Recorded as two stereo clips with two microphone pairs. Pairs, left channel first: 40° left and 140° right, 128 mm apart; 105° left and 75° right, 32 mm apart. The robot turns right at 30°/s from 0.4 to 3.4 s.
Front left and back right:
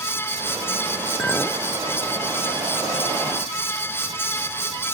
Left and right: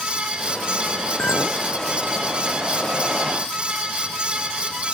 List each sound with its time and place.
1.2 s a clink: 115° left; by 1.6 s 130° left